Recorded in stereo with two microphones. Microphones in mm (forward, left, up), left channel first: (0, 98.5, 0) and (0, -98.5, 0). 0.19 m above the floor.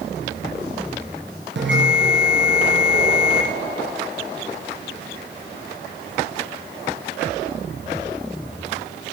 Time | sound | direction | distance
1.6 | a bell | 70° right (ahead or behind) | 2 m